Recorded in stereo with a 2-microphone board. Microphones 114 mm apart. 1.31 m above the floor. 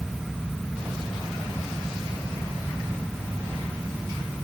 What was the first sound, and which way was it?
Only background noise.